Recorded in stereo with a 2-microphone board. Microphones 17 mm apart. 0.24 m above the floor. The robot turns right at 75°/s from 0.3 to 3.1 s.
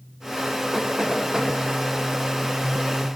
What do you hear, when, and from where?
0.7 s knocking: 10° right (ahead or behind), 2.5 m; by 1.5 s 55° right (ahead or behind), 2.5 m